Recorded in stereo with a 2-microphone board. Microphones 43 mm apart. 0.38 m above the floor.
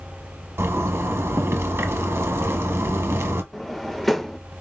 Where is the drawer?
5° left (ahead or behind), 0.5 m.